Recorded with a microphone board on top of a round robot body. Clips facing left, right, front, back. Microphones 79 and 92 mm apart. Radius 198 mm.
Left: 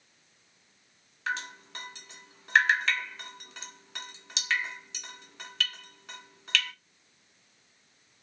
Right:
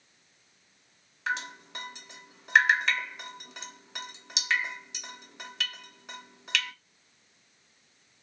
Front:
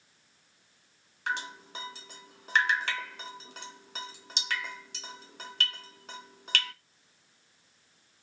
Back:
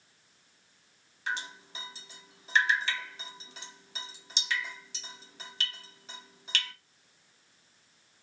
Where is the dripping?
15° right, 1.9 m.